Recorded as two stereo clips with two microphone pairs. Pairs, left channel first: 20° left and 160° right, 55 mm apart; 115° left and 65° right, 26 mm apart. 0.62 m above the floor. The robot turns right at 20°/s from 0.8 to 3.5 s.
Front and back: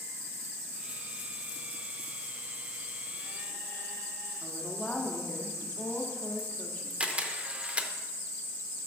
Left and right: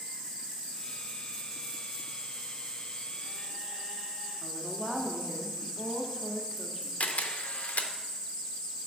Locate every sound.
4.4 s a woman speaking: 15° left, 0.8 m
7.0 s a camera shutter: 130° left, 0.5 m